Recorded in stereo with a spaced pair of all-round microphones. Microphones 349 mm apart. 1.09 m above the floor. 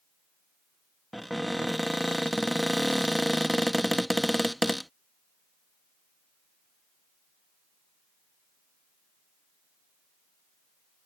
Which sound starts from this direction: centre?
A cupboard door, at 1.1 s.